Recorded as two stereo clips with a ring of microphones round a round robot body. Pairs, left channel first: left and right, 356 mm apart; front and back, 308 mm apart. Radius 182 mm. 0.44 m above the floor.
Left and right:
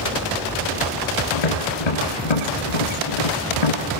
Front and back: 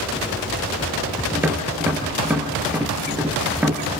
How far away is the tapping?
About 6.5 m.